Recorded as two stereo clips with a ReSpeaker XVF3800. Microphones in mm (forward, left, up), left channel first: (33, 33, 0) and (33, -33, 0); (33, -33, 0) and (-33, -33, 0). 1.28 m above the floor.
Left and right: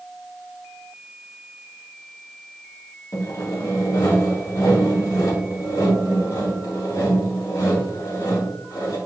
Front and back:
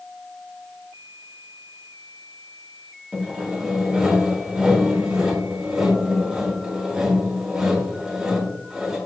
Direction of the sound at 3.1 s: 100° left.